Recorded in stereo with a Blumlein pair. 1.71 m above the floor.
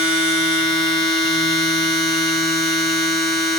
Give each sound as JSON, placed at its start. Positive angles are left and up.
{"t": 0.0, "sound": "a machine running", "azimuth_deg": -15, "distance_m": 9.0}